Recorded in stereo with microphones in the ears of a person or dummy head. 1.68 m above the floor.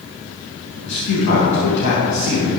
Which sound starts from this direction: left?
A man speaking, at 0.8 s.